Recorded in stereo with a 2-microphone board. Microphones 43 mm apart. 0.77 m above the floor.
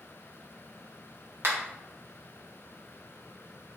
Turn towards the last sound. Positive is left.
turn(degrees=-65)  # may be behind; listen again after turning